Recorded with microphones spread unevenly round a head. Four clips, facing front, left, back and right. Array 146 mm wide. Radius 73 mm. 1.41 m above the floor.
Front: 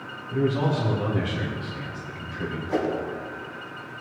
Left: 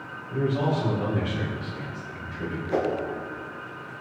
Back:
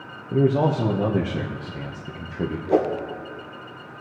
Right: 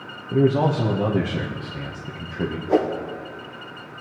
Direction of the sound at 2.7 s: 140° right.